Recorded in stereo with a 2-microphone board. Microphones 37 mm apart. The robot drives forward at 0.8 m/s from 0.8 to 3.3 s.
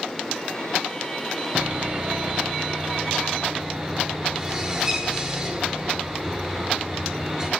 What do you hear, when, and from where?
1.6 s sawing: 40° right (ahead or behind), 1.1 m; by 7.5 s 15° right (ahead or behind), 2.5 m